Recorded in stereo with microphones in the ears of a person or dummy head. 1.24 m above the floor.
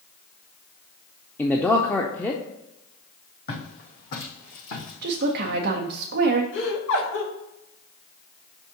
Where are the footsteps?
50° left (ahead or behind), 3 m; by 5.6 s 75° left (ahead or behind), 4.5 m.